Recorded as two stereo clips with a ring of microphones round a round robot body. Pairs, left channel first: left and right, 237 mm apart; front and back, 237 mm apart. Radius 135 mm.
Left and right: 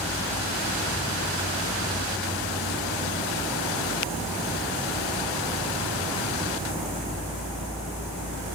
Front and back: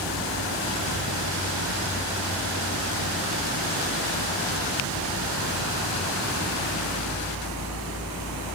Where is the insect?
20° right, 6.5 m.